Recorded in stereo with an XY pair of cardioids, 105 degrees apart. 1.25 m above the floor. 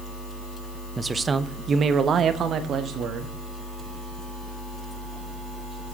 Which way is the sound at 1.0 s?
25° right.